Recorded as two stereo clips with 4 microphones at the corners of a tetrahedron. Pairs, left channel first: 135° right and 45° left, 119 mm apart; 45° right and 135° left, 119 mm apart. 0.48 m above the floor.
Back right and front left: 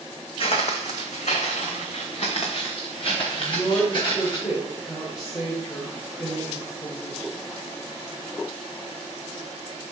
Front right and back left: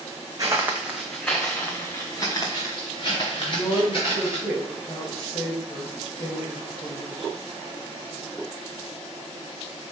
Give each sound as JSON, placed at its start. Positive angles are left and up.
{"t": 0.4, "sound": "footsteps", "azimuth_deg": -170, "distance_m": 1.2}
{"t": 3.4, "sound": "a woman speaking", "azimuth_deg": -75, "distance_m": 1.7}